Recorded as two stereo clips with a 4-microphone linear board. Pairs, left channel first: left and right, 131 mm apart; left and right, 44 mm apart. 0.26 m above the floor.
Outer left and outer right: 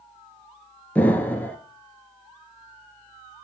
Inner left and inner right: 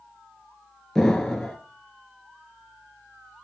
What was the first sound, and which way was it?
An explosion, 10° left (ahead or behind).